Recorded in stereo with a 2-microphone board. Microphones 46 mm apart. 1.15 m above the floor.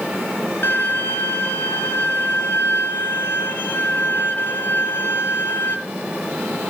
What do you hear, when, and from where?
0.6 s a violin: 50° left (ahead or behind), 1.5 m